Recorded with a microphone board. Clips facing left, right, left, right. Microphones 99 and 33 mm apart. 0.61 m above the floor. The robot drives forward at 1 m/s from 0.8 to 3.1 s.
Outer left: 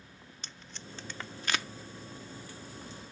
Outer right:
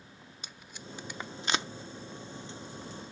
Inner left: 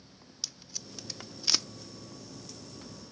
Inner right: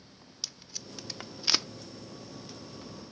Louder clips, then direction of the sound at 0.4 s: Outer right 2 dB, inner right 1 dB; 10° right (ahead or behind).